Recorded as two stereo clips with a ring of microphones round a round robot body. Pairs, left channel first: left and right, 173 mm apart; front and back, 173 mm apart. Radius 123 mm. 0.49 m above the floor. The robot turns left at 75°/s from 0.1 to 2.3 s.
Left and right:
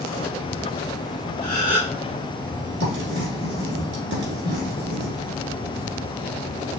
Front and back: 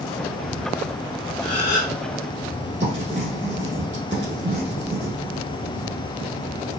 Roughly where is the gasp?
Left.